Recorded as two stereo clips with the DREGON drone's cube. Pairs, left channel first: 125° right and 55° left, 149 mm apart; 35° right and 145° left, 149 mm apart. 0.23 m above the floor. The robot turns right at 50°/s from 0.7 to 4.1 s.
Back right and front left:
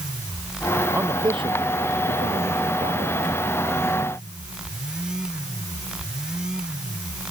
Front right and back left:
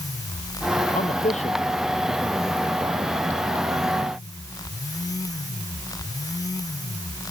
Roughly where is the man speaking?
Ahead.